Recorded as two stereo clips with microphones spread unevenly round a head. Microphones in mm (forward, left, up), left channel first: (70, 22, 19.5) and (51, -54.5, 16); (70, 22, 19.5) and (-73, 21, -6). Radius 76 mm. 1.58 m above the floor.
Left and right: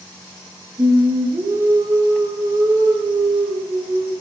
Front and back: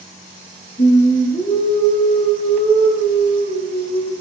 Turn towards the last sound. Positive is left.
turn(degrees=-55)